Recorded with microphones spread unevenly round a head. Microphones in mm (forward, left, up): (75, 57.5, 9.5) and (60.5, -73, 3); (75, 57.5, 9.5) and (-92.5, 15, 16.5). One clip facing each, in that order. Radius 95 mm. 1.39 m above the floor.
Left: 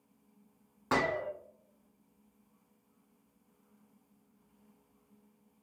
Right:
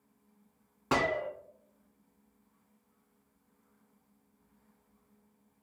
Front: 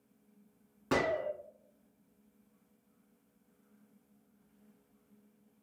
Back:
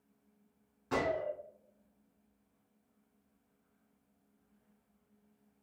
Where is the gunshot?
20° right, 0.5 m.